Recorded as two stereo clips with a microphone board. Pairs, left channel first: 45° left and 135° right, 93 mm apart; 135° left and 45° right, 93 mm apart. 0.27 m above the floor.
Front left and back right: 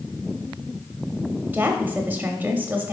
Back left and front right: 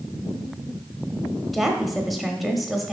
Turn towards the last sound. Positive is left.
turn(degrees=-130)